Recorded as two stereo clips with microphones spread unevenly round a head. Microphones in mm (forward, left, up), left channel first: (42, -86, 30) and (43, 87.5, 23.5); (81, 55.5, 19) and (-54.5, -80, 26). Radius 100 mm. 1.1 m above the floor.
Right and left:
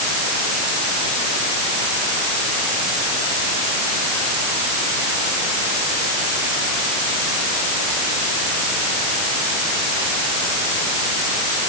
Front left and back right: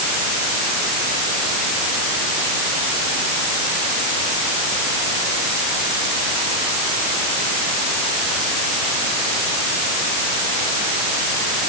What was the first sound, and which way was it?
Only background noise.